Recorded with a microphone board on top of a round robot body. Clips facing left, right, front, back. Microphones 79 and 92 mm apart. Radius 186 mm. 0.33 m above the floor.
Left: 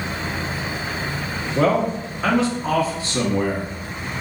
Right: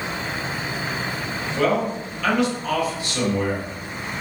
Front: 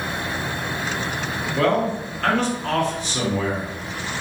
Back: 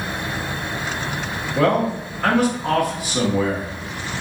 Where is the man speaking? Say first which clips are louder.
Left 3 dB, back 2 dB; 110° left, 1.0 m.